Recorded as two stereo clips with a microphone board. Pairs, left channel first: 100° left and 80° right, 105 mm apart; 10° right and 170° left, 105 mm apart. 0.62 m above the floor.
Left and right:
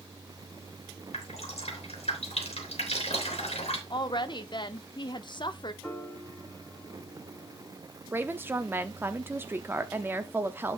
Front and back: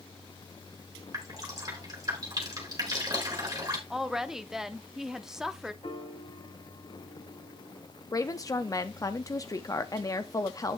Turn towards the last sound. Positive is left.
turn(degrees=-25)